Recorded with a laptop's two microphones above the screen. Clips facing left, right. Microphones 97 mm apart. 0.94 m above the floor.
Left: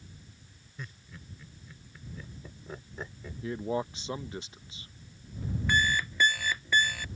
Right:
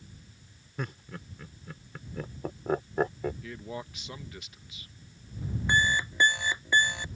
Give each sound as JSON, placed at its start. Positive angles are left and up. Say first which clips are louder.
{"t": 0.8, "sound": "laughter", "louder": "right 9 dB", "side_deg": -70}
{"t": 3.4, "sound": "a man speaking", "louder": "left 7 dB", "side_deg": 30}
{"t": 5.7, "sound": "an alarm clock", "louder": "right 2 dB", "side_deg": -20}